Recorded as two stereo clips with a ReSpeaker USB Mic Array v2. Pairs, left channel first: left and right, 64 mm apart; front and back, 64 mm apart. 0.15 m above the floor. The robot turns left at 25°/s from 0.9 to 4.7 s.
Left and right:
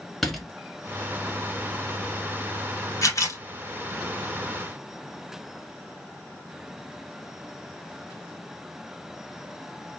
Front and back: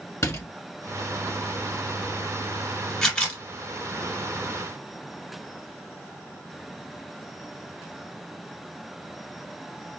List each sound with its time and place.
0.2 s a door slam: 5° left, 1.1 m
3.0 s a camera shutter: 80° left, 1.3 m; by 3.4 s 65° left, 1.3 m